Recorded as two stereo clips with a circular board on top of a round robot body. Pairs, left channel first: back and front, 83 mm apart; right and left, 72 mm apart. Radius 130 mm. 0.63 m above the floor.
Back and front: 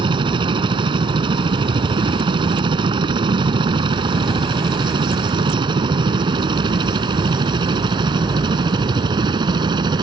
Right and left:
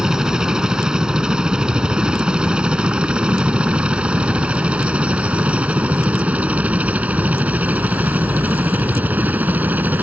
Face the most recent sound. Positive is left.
turn(degrees=25)